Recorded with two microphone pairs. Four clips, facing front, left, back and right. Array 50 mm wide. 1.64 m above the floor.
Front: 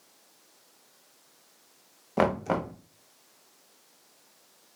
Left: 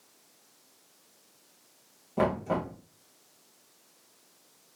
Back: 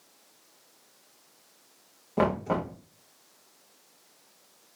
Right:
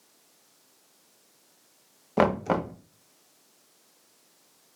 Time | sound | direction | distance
2.2 | knocking | 60° right | 1.0 m